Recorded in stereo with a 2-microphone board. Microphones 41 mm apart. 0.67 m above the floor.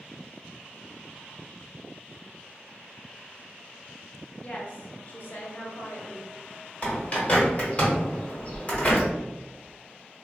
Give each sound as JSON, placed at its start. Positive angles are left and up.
{"t": 4.4, "sound": "a woman speaking", "side_deg": 25, "distance_m": 0.6}
{"t": 6.8, "sound": "a bird", "side_deg": 35, "distance_m": 1.1}